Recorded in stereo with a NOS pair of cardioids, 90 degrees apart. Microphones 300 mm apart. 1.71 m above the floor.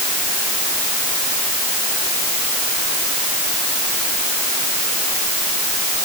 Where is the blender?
No blender in this recording.